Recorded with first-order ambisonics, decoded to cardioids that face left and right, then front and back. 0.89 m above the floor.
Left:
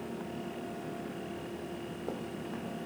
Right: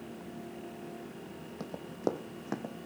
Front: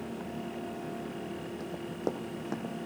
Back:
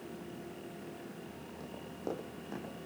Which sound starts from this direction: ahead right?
Running footsteps, at 1.6 s.